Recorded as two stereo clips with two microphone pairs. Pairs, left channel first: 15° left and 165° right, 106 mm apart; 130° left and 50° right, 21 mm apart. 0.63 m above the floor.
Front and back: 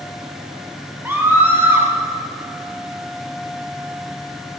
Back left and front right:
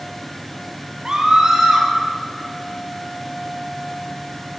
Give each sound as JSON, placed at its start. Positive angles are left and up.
{"t": 1.1, "sound": "a scream", "azimuth_deg": -100, "distance_m": 2.5}